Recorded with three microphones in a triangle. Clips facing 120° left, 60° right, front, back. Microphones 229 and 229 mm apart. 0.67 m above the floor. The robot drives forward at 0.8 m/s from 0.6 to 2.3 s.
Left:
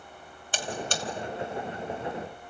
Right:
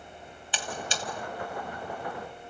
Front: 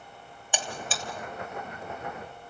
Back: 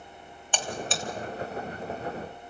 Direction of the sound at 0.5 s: 80° left.